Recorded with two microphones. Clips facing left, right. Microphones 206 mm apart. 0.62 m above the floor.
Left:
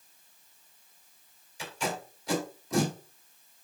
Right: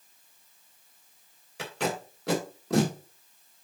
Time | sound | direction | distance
1.6 | tape being pulled | 70° right (ahead or behind) | 1.8 m